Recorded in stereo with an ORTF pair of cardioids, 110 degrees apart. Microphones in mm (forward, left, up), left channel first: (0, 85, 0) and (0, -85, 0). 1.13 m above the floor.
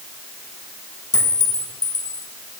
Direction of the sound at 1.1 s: 20° left.